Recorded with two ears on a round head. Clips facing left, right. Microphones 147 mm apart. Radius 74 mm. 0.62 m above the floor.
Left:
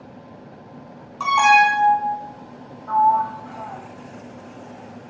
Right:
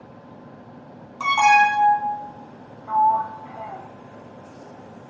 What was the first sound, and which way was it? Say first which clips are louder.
An alarm: left 1 dB; 5° right (ahead or behind).